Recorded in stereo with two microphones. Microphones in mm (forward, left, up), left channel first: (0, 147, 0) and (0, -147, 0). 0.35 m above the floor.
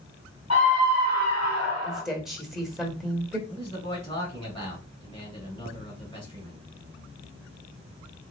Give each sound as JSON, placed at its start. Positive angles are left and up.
{"t": 0.5, "sound": "a scream", "side_deg": 55, "distance_m": 2.0}
{"t": 1.8, "sound": "a woman speaking", "side_deg": 0, "distance_m": 1.0}
{"t": 3.5, "sound": "a man speaking", "side_deg": 15, "distance_m": 2.0}